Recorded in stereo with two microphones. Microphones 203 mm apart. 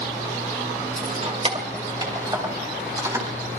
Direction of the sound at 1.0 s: 40° right (ahead or behind).